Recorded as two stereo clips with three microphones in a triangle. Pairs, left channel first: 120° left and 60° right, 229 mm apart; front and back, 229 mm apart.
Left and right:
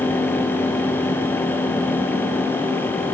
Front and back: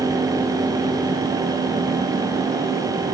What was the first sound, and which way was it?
Only background noise.